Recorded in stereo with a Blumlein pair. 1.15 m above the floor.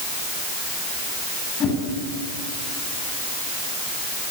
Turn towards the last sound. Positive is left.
turn(degrees=25)